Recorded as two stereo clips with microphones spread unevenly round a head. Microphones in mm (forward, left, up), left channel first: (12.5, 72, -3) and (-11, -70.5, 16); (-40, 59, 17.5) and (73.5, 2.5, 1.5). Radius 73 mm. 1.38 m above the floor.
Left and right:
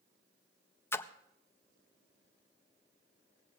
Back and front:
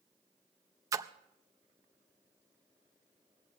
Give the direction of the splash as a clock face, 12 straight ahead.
12 o'clock.